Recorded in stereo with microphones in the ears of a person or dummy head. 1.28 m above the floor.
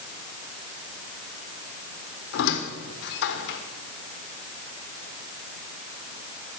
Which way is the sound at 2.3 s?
65° left (ahead or behind).